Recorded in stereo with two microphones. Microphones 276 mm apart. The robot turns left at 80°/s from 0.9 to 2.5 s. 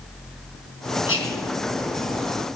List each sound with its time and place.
1.1 s whispering: 55° left, 4 m; by 1.5 s 25° left, 4 m